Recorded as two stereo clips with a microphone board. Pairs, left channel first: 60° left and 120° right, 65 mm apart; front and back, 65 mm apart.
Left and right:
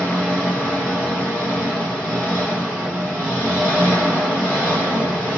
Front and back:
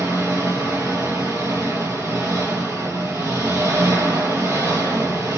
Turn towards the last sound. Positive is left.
turn(degrees=175)